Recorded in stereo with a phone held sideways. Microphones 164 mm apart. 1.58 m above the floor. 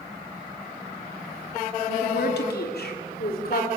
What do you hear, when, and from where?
1.9 s a woman speaking: 80° left, 3 m; by 3.7 s 65° left (ahead or behind), 4 m